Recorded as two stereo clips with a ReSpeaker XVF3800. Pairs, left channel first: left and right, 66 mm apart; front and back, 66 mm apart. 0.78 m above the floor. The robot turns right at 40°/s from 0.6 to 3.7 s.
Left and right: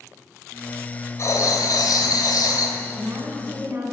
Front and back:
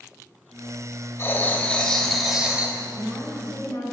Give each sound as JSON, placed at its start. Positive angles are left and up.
{"t": 1.2, "sound": "writing", "azimuth_deg": 50, "distance_m": 2.5}
{"t": 2.8, "sound": "a woman speaking", "azimuth_deg": -80, "distance_m": 5.5}